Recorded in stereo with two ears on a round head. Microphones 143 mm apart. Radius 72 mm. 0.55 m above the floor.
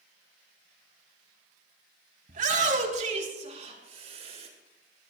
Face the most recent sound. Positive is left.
turn(degrees=-40)  # may be behind; listen again after turning